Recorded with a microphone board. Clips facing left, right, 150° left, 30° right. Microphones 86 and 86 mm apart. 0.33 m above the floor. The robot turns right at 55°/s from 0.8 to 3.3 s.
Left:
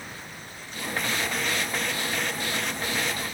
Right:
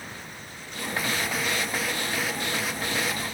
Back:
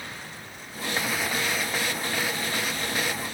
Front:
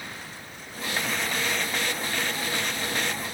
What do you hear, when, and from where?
Only background noise.